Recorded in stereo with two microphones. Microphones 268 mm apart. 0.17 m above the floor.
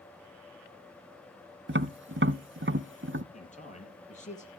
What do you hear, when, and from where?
1.7 s tapping: 45° right (ahead or behind), 0.6 m
3.3 s a man speaking: 25° left (ahead or behind), 4.5 m